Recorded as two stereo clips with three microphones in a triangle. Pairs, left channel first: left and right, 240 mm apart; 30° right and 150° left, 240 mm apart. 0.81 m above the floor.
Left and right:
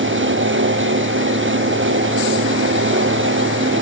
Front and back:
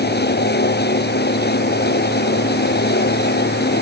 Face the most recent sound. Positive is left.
No sound to turn to.